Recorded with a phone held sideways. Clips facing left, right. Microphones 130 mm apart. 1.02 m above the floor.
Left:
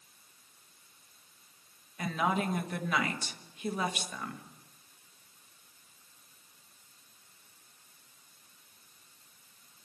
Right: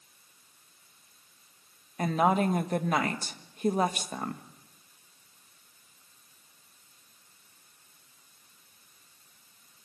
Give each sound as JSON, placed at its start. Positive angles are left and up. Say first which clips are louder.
{"t": 2.0, "sound": "a woman speaking", "louder": "right 6 dB", "side_deg": -40, "distance_m": 1.3}